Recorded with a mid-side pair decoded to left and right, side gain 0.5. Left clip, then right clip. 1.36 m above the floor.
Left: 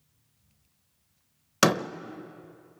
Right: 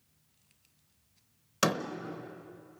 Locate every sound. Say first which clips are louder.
1.6 s a door slam: left 6 dB; 50° left, 0.8 m